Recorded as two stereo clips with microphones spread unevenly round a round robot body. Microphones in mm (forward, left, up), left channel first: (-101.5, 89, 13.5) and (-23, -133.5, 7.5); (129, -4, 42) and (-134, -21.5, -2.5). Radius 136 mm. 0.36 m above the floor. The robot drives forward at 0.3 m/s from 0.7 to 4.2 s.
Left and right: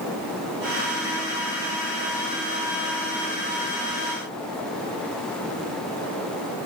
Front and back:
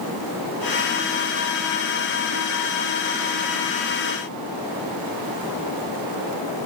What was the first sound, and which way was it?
Only background noise.